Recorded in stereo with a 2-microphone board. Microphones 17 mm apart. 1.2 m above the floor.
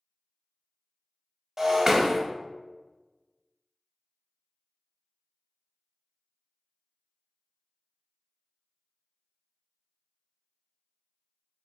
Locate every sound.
1.6 s breaking glass: 25° right (ahead or behind), 1.0 m